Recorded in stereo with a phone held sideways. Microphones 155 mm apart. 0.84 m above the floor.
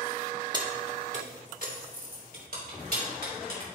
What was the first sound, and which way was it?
Keys jangling, 25° right (ahead or behind).